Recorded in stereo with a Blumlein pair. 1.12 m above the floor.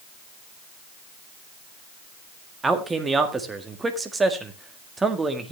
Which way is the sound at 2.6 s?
10° right.